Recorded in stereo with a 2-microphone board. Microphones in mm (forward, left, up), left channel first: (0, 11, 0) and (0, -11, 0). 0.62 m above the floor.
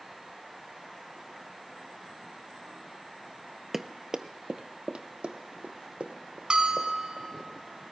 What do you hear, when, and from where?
3.7 s running footsteps: 10° right (ahead or behind), 0.7 m; by 7.3 s 70° right (ahead or behind), 3 m
6.5 s a bell: 45° right (ahead or behind), 2.5 m